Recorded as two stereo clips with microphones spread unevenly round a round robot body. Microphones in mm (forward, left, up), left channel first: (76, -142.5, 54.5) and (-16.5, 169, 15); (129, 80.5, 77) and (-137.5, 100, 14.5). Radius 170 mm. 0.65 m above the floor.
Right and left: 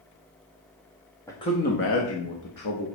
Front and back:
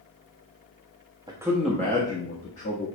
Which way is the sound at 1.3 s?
160° right.